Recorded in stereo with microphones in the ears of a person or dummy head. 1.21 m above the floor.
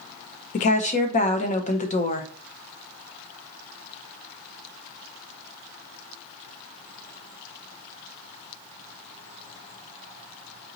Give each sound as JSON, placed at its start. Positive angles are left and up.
{"t": 0.5, "sound": "a woman speaking", "side_deg": 30, "distance_m": 0.7}